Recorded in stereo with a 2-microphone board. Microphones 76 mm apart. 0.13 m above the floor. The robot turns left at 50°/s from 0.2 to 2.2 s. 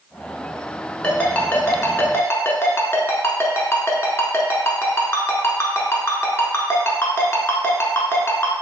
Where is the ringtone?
15° left (ahead or behind), 0.7 m; by 8.5 s 35° left (ahead or behind), 0.7 m.